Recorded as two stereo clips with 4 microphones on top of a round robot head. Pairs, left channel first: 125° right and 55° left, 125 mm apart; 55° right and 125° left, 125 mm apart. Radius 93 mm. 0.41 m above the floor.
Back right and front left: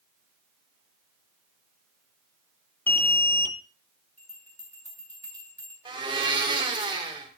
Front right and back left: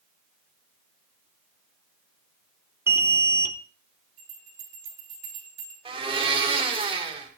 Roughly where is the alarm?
Behind.